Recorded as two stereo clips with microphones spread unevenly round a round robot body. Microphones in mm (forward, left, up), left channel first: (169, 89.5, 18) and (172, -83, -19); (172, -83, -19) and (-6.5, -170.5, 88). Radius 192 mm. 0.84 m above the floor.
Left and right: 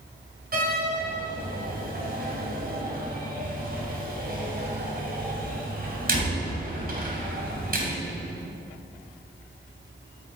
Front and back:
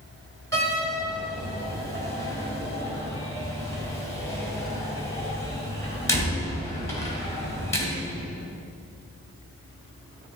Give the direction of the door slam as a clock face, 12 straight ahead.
2 o'clock.